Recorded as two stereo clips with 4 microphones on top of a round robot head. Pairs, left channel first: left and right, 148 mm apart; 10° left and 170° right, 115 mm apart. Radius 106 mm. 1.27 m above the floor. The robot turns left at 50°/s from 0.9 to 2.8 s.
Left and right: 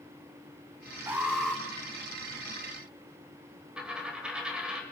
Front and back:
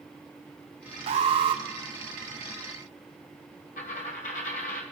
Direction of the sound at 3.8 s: 5° right.